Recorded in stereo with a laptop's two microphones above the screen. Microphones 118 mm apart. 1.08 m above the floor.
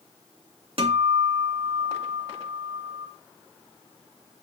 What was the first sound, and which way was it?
A guitar, 50° right (ahead or behind).